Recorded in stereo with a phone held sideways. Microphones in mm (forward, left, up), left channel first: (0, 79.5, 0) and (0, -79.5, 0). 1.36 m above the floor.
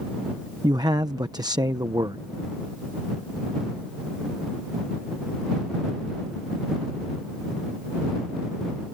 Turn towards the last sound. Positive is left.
turn(degrees=-25)  # may be behind; listen again after turning